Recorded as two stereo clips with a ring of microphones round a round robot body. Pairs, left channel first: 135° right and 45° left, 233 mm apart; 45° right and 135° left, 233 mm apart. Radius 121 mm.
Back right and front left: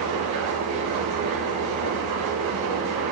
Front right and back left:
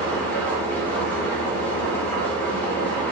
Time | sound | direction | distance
0.0 | an engine running | 40° left | 3 m